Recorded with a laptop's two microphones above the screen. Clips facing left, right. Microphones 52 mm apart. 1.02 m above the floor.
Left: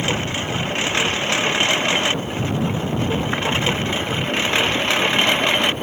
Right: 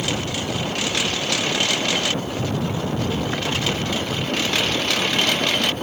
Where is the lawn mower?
25° left (ahead or behind); by 5.8 s 20° left (ahead or behind).